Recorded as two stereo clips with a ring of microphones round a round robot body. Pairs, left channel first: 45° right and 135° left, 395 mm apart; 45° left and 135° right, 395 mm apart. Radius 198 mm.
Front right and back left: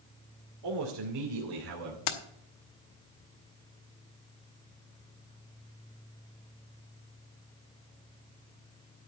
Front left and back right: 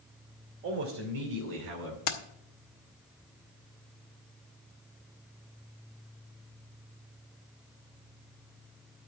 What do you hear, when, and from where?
0.6 s a man speaking: 165° left, 2.5 m; by 2.0 s straight behind, 2.5 m
2.1 s keys jangling: straight ahead, 1.1 m